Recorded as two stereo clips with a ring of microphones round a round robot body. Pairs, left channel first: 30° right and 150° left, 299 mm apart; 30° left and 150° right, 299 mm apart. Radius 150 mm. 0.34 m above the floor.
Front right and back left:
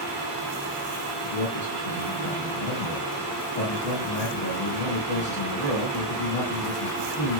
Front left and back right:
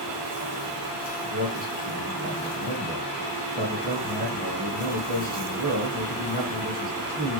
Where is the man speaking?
90° right, 1.7 m.